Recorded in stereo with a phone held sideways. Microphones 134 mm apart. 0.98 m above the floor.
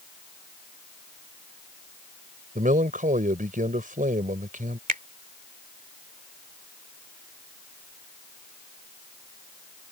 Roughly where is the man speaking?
Right.